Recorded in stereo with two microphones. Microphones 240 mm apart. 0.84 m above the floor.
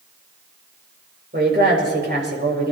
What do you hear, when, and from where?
1.3 s a woman speaking: 45° right (ahead or behind), 4.5 m